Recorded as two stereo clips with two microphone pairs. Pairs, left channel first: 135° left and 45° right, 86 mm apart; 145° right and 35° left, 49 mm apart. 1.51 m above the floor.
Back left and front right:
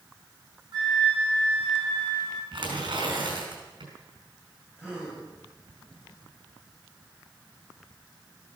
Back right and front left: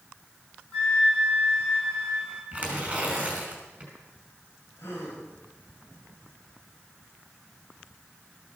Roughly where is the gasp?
Behind right.